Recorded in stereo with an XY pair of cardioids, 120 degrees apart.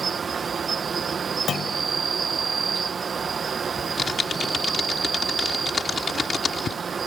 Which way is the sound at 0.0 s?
30° right.